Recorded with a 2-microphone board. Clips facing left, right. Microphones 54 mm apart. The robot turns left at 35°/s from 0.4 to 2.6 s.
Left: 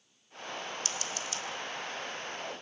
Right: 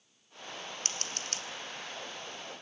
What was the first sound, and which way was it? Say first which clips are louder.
Scissors: left 3 dB; 40° right (ahead or behind).